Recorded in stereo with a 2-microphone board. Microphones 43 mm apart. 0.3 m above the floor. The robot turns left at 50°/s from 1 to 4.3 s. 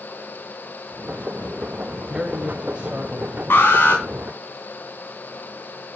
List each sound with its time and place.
2.1 s a man speaking: 20° right, 1.3 m; by 3.4 s 85° right, 1.3 m
3.5 s an alarm: 65° left (ahead or behind), 3.5 m; by 4.0 s 55° left (ahead or behind), 3.5 m